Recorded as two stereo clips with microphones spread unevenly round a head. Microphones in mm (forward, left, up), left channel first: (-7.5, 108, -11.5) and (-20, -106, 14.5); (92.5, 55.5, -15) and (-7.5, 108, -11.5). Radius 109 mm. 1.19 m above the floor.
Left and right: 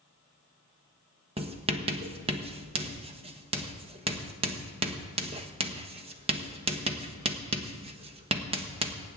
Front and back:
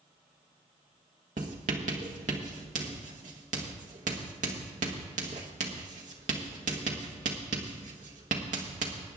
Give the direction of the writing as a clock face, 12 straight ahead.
5 o'clock.